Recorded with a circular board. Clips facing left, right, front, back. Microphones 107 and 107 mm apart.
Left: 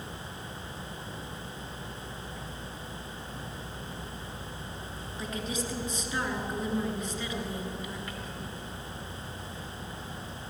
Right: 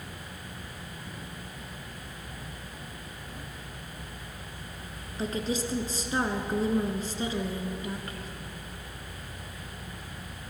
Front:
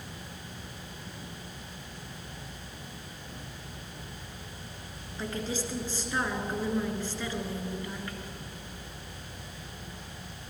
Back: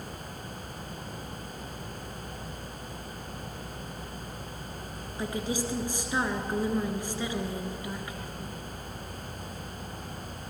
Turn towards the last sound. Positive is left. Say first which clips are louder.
# right 5 dB, back 2 dB
turn(degrees=-115)